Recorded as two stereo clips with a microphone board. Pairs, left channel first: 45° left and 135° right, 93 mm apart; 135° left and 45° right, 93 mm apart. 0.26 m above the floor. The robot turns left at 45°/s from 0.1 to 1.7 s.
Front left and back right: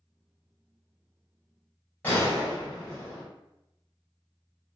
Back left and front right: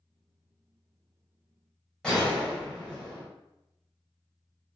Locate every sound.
2.0 s a gunshot: 70° left, 1.5 m